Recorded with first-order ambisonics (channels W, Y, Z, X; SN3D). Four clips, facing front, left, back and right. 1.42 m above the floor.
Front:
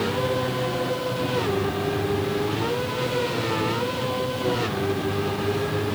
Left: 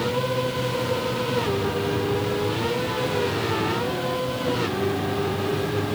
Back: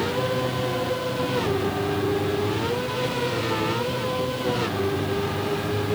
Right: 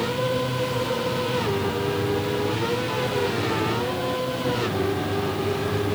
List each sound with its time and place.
Only background noise.